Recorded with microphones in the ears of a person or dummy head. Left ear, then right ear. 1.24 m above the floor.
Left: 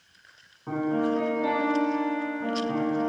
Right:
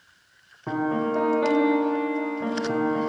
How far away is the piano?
About 0.6 m.